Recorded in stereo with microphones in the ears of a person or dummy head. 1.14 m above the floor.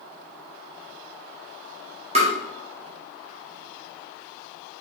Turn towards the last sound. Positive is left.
turn(degrees=-30)  # may be behind; listen again after turning